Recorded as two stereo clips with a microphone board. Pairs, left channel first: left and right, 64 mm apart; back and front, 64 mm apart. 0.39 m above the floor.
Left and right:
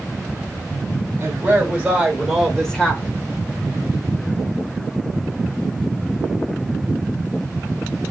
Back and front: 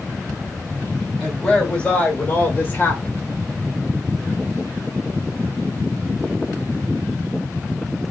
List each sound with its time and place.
1.2 s a woman speaking: 105° right, 1.2 m; by 3.2 s 145° left, 1.3 m